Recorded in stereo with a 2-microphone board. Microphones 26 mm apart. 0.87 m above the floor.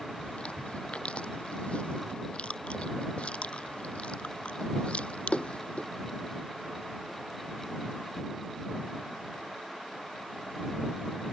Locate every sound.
0.2 s chewing: 45° left (ahead or behind)